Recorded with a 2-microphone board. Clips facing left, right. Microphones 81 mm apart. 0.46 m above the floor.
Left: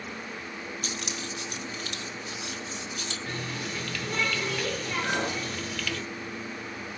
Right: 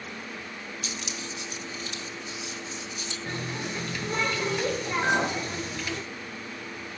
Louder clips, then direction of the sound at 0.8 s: Left 1 dB; 45° left (ahead or behind).